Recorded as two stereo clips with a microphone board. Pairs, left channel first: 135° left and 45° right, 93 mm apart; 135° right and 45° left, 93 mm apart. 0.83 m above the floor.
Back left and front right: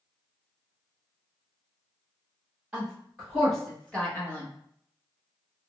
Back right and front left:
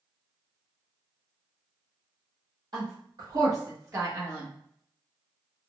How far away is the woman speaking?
About 1.6 m.